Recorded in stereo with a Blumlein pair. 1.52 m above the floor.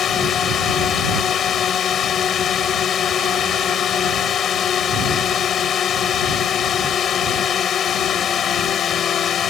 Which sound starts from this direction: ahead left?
A drone, at 0.0 s.